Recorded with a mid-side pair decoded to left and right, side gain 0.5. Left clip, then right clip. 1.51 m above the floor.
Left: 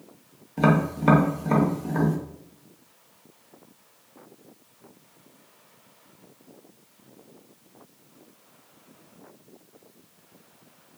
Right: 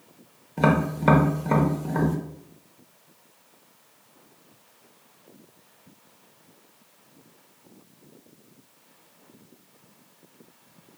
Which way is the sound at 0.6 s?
10° right.